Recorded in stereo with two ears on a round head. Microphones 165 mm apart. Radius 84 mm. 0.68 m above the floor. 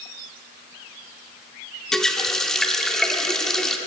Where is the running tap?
5° left (ahead or behind), 0.8 m.